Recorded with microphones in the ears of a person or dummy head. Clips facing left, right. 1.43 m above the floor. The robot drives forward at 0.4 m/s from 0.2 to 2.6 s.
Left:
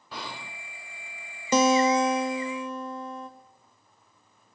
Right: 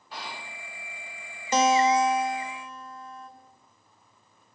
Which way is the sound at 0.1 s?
75° left (ahead or behind).